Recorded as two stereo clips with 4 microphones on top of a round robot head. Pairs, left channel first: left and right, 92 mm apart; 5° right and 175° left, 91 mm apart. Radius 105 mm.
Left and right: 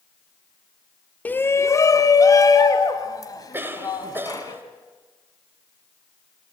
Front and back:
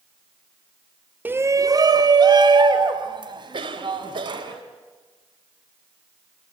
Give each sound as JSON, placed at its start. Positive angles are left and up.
{"t": 1.2, "sound": "a shout", "azimuth_deg": 140, "distance_m": 0.9}
{"t": 3.5, "sound": "a cough", "azimuth_deg": -155, "distance_m": 2.0}